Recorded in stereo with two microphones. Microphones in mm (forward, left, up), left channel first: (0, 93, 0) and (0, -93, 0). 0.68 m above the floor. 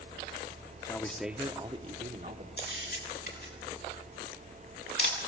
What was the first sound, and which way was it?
A man speaking, 20° left (ahead or behind).